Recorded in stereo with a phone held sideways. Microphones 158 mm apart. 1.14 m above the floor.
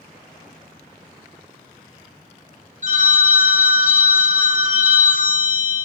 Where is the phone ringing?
50° right (ahead or behind), 1.3 m.